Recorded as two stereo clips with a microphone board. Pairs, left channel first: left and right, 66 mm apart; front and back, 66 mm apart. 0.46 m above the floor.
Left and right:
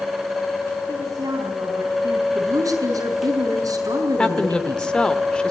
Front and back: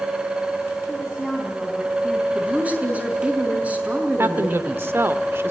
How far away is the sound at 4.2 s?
About 1.4 m.